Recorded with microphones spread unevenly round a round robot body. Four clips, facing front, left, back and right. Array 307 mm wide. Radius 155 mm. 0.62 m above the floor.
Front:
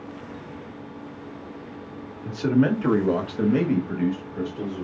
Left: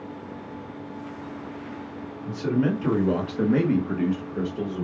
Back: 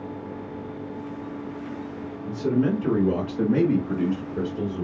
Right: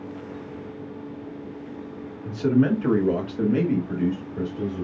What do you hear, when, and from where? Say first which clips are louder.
2.2 s a man speaking: right 4 dB, front 2 dB; 35° right, 1.8 m; by 4.8 s 130° left, 2 m